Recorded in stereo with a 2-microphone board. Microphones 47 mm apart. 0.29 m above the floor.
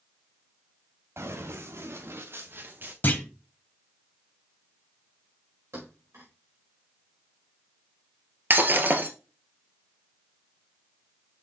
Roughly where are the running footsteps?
Right.